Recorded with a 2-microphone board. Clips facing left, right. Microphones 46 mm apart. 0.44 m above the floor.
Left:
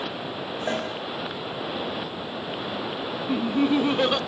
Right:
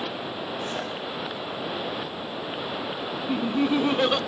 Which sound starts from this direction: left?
A cowbell, at 0.7 s.